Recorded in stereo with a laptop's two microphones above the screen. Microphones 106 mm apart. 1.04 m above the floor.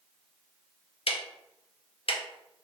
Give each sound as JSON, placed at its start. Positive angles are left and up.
{"t": 1.1, "sound": "ticking", "side_deg": 60, "distance_m": 0.6}